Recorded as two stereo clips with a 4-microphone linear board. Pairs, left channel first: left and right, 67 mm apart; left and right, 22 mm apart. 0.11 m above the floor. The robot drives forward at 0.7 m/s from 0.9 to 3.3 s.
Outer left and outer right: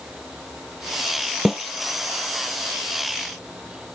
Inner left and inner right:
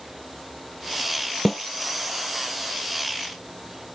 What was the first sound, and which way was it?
A snare drum, 5° right (ahead or behind).